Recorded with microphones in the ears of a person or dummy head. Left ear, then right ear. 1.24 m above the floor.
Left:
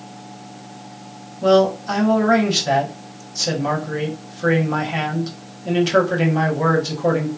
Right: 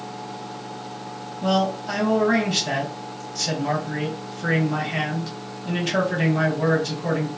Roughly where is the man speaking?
Centre.